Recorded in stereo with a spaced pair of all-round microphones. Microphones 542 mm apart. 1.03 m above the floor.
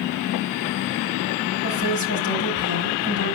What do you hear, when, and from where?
1.6 s a woman speaking: 30° left (ahead or behind), 7 m